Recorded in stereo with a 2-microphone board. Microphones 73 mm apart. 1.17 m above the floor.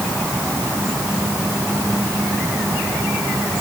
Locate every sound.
Only background noise.